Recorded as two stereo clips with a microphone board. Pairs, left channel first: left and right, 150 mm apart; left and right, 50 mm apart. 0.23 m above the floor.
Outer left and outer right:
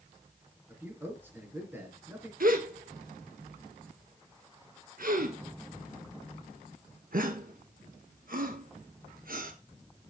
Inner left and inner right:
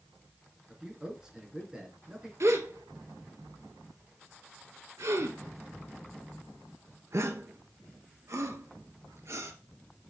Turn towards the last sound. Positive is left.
turn(degrees=-70)  # may be behind; listen again after turning